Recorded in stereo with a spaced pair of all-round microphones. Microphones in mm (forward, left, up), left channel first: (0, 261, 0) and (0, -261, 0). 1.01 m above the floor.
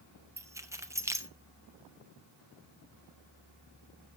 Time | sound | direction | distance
0.4 | keys jangling | 5° right (ahead or behind) | 0.6 m